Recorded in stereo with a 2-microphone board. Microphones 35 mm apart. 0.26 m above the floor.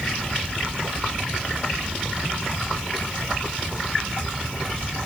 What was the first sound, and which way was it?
Only background noise.